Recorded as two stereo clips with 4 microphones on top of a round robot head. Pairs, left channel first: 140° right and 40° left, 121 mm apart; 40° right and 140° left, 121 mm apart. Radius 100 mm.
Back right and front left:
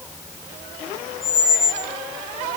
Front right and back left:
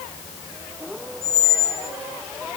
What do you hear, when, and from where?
1.2 s a squeak: 5° right, 5 m